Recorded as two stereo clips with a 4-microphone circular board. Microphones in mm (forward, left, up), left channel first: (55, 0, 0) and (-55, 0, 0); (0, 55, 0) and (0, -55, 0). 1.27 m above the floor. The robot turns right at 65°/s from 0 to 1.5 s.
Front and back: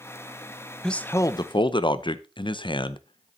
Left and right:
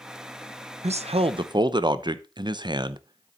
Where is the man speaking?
85° right, 0.7 m; by 3.4 s 45° right, 0.7 m.